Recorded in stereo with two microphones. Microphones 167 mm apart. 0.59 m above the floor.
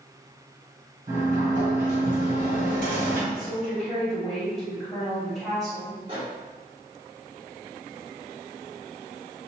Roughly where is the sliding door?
Right.